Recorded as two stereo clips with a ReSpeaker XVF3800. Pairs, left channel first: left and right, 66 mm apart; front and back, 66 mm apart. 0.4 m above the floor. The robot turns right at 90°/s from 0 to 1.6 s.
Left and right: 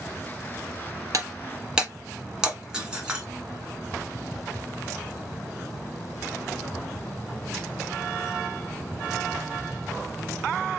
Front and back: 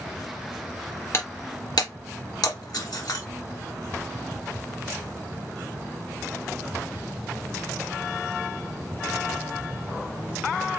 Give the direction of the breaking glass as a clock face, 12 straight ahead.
2 o'clock.